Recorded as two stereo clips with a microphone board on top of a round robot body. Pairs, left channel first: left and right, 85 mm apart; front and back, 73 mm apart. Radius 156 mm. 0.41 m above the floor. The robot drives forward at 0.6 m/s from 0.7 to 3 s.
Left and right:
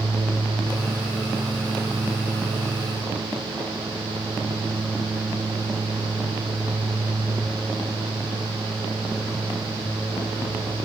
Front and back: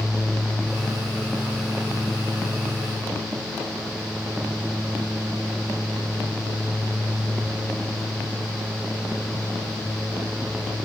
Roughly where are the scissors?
I don't hear scissors.